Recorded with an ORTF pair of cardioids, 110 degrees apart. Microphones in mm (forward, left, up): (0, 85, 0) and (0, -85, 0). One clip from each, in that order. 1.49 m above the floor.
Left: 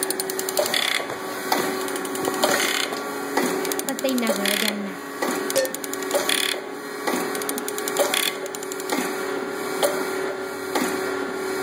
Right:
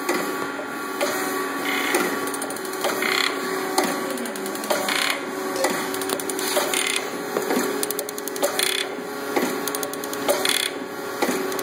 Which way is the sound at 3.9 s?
70° left.